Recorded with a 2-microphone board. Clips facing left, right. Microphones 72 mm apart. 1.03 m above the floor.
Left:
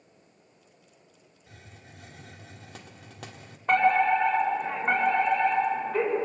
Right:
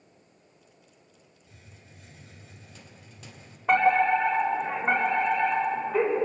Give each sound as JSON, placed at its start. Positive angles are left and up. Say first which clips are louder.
{"t": 1.5, "sound": "a hiss", "louder": "left 5 dB", "side_deg": 85, "distance_m": 1.8}
{"t": 3.7, "sound": "a fire alarm", "louder": "even", "side_deg": -5, "distance_m": 7.0}